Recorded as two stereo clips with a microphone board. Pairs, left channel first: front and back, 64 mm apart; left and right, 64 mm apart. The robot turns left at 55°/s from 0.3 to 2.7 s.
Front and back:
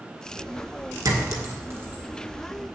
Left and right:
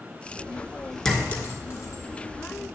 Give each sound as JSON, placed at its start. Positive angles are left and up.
{"t": 1.1, "sound": "a clink", "azimuth_deg": 170, "distance_m": 1.6}